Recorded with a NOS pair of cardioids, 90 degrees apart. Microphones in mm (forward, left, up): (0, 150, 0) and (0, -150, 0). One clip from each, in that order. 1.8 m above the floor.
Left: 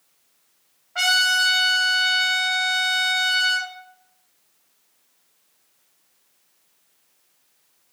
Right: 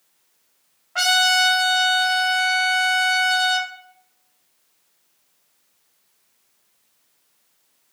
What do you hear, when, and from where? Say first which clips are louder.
0.9 s a trumpet: right 2 dB; 45° right, 2.5 m